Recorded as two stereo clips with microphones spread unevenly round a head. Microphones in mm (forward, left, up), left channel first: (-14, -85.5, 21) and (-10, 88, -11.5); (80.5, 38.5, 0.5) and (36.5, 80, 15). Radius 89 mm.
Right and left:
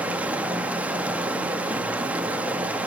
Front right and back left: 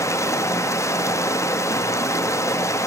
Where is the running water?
Straight ahead, 0.8 m.